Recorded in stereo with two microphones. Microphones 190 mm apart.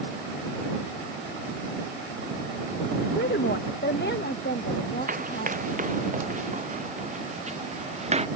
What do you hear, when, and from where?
3.2 s a woman speaking: 60° left (ahead or behind); by 5.6 s 55° left (ahead or behind)
5.1 s running footsteps: 45° right (ahead or behind); by 8.3 s 35° right (ahead or behind)